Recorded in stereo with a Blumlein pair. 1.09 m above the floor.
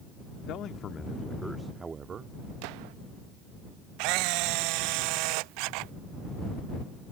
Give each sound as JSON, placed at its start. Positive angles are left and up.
{"t": 0.5, "sound": "a man speaking", "azimuth_deg": 35}
{"t": 2.6, "sound": "a gunshot", "azimuth_deg": -45}
{"t": 4.0, "sound": "a camera shutter", "azimuth_deg": -45}